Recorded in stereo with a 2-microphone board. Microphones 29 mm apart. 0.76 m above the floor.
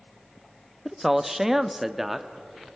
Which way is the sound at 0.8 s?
15° right (ahead or behind).